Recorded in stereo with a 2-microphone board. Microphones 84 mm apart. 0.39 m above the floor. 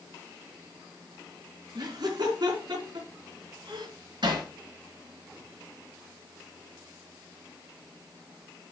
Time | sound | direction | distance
1.8 | laughter | 60° right (ahead or behind) | 4 m
4.2 | hammering | 70° right (ahead or behind) | 4 m